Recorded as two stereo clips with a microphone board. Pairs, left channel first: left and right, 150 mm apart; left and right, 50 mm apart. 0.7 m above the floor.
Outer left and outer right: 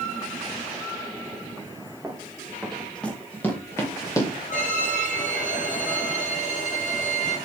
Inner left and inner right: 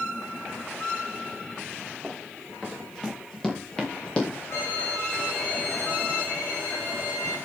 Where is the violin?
55° left (ahead or behind), 4 m.